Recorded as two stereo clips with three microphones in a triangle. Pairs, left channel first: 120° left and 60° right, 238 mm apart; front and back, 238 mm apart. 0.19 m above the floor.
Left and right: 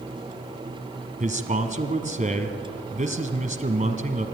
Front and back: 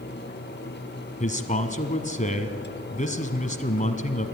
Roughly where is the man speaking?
Ahead right.